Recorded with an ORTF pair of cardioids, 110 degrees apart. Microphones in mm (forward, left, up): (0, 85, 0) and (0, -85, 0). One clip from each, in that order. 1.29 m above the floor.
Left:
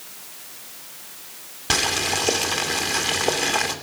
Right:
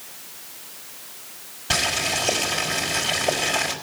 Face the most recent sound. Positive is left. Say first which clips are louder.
# left 1 dB
turn(degrees=40)